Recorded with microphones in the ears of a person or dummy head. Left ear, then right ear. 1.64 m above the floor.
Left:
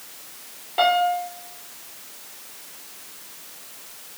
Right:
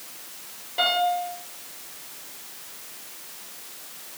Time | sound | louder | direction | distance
0.8 | a piano | left 3 dB | 30° left (ahead or behind) | 2.5 m